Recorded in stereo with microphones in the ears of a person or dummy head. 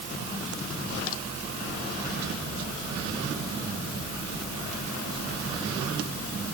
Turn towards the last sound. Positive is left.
No sound to turn to.